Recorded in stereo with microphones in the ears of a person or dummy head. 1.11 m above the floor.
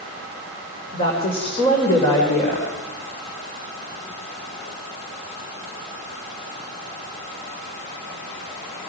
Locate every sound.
0.9 s a woman speaking: 35° left (ahead or behind), 4 m